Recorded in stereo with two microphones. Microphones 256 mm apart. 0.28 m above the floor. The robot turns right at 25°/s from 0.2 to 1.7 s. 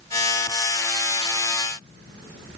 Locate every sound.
Only background noise.